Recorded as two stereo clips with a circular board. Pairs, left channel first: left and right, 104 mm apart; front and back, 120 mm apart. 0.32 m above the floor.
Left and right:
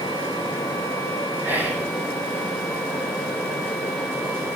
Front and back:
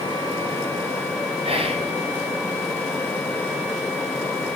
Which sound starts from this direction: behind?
Whispering, at 1.4 s.